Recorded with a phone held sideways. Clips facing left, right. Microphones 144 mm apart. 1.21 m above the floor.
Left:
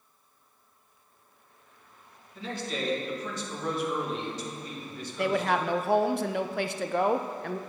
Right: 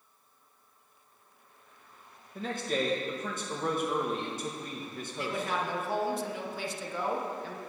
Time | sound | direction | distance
2.4 | a man speaking | 50° right (ahead or behind) | 1.4 m
5.2 | a woman speaking | 65° left (ahead or behind) | 0.5 m